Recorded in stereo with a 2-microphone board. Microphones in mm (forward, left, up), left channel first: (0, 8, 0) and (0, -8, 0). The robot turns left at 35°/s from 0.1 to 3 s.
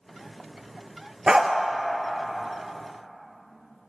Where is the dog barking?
55° right (ahead or behind), 0.5 m; by 1.5 s 50° right (ahead or behind), 0.5 m.